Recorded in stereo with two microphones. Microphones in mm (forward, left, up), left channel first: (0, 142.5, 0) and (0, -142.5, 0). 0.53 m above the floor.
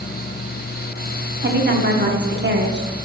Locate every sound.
1.4 s a woman speaking: 40° right (ahead or behind), 0.9 m